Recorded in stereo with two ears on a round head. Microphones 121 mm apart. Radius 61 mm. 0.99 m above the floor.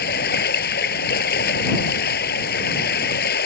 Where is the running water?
80° left.